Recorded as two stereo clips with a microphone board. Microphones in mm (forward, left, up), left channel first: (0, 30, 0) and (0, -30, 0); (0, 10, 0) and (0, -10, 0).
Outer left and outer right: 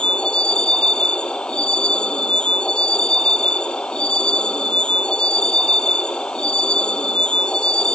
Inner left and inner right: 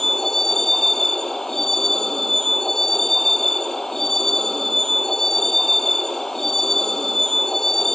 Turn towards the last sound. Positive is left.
turn(degrees=15)  # may be behind; listen again after turning